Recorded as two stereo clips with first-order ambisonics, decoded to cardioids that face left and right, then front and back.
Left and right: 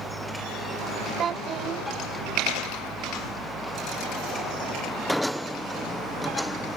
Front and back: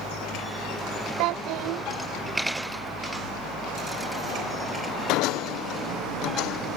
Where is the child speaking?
150° right.